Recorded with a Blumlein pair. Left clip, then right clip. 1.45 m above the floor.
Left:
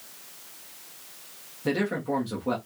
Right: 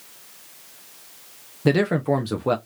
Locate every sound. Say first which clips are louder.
1.6 s a man speaking: right 7 dB; 25° right, 0.6 m